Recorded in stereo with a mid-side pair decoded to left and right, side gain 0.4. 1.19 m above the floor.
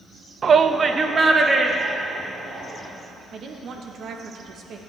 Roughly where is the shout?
Ahead right.